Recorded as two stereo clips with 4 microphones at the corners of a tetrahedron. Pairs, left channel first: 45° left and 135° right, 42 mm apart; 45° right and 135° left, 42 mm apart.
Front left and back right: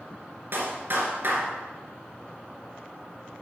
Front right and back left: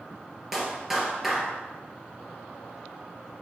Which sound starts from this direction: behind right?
A clap, at 0.5 s.